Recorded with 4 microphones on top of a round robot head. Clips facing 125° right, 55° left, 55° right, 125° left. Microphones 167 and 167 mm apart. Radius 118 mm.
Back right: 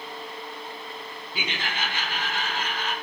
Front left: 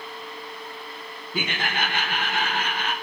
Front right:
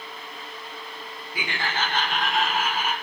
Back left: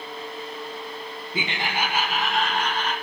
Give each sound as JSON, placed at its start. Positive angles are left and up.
{"t": 1.3, "sound": "laughter", "azimuth_deg": 70, "distance_m": 1.0}